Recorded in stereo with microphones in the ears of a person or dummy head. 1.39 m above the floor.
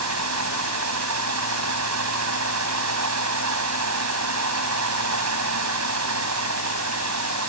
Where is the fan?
80° right.